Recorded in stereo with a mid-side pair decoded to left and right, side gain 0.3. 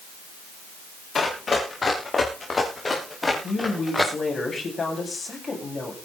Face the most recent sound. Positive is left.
turn(degrees=45)